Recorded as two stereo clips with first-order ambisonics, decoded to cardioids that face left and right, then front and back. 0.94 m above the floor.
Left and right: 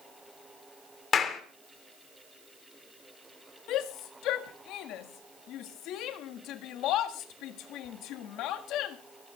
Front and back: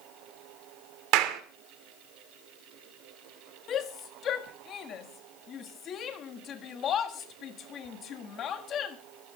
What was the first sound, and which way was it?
A clap, 155° left.